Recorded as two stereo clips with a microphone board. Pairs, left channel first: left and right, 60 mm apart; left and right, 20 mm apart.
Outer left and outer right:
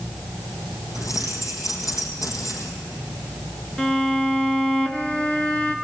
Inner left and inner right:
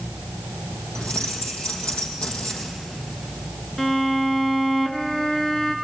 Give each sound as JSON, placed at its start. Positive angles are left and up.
{"t": 0.9, "sound": "keys jangling", "side_deg": 70, "distance_m": 3.5}
{"t": 3.8, "sound": "a violin", "side_deg": 15, "distance_m": 1.4}